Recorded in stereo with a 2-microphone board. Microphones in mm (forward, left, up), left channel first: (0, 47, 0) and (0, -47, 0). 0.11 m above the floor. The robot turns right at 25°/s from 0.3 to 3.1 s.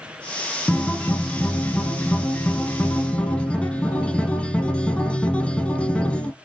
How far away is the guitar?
About 0.6 m.